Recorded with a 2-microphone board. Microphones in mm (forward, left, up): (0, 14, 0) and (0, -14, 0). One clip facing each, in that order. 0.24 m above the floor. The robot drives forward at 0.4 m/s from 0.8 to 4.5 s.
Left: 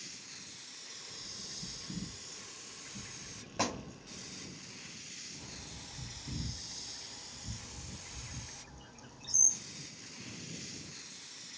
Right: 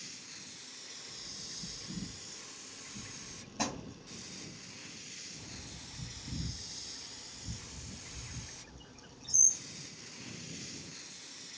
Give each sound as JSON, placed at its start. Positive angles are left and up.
{"t": 1.1, "sound": "a bird", "side_deg": 60, "distance_m": 3.0}
{"t": 3.6, "sound": "a thud", "side_deg": 80, "distance_m": 2.5}
{"t": 5.4, "sound": "a bird", "side_deg": 35, "distance_m": 3.5}